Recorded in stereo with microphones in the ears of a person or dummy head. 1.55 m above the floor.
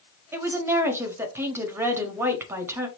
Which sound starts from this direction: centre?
A woman speaking, at 0.3 s.